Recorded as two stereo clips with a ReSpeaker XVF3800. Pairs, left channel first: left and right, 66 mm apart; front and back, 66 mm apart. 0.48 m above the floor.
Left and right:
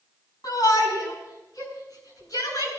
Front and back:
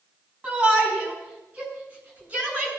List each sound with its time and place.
0.4 s a shout: 120° left, 5.5 m; by 2.7 s 115° left, 7 m